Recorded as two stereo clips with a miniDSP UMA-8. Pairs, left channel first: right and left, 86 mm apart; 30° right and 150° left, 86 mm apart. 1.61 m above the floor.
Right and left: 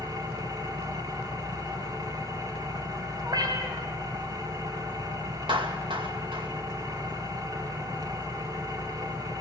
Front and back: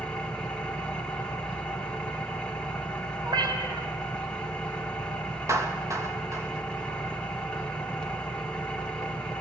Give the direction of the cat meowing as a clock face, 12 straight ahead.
8 o'clock.